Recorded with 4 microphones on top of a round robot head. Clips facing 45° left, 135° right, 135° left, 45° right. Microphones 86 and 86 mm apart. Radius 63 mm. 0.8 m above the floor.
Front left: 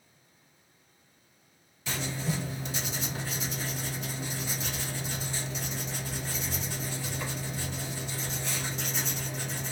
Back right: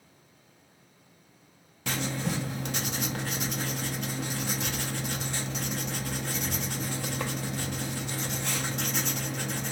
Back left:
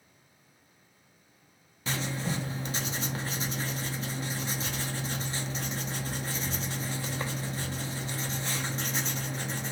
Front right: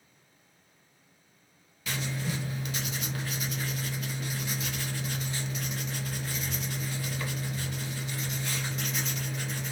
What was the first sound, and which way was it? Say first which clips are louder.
Writing: back right 2 dB, back left 1 dB; 165° right.